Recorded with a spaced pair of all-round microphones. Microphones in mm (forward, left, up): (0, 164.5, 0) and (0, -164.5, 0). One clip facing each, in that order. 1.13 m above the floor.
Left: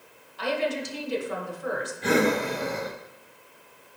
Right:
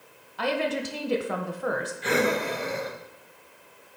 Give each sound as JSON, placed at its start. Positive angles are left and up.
{"t": 0.4, "sound": "a woman speaking", "side_deg": -70, "distance_m": 0.9}
{"t": 2.0, "sound": "breathing", "side_deg": 55, "distance_m": 0.8}